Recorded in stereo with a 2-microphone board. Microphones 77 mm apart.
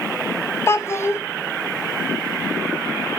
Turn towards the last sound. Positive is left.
turn(degrees=35)  # may be behind; listen again after turning